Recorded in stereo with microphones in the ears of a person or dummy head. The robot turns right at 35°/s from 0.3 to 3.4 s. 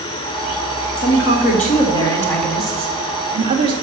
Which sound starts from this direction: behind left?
A woman speaking, at 1.0 s.